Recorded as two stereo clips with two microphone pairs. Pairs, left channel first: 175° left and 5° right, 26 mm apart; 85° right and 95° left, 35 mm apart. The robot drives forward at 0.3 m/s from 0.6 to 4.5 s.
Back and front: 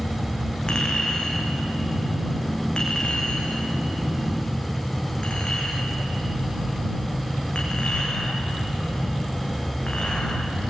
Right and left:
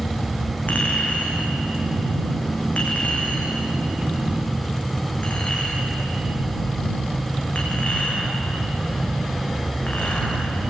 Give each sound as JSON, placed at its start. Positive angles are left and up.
{"t": 0.7, "sound": "a clink", "azimuth_deg": -130, "distance_m": 7.0}